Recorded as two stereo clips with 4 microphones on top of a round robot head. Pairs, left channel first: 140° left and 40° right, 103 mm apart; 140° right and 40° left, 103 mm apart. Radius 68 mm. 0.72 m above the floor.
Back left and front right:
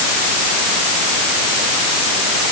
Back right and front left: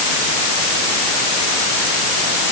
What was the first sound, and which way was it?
Only background noise.